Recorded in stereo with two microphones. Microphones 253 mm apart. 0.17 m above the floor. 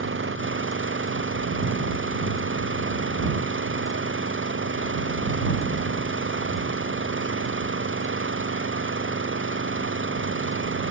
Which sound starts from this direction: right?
An engine running, at 0.0 s.